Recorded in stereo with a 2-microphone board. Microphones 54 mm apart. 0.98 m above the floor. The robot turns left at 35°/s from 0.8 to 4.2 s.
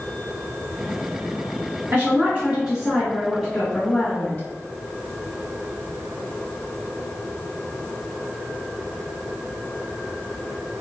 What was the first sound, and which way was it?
A woman speaking, 125° right.